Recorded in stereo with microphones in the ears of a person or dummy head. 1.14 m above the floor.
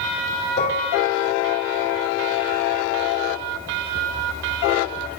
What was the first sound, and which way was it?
Dishes clattering, 40° left (ahead or behind).